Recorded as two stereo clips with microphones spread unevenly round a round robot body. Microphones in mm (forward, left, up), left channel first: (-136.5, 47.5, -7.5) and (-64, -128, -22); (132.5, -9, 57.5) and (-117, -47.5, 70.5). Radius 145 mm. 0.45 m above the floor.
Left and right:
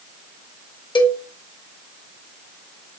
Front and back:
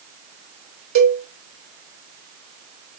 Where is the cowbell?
Straight behind, 0.9 m.